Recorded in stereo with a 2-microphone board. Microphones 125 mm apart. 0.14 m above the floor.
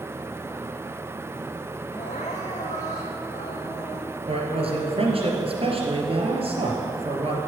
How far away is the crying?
About 3.5 m.